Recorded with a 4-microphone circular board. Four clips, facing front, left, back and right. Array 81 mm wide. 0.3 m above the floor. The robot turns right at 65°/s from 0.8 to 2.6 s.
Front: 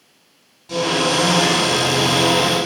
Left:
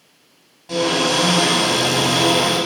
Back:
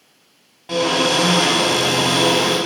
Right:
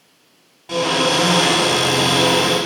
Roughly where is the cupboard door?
Behind.